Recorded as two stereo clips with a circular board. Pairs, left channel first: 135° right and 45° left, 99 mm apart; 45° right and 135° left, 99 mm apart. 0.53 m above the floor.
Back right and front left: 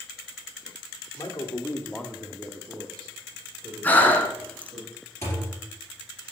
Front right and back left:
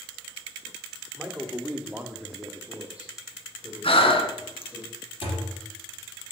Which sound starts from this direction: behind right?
A man speaking, at 1.2 s.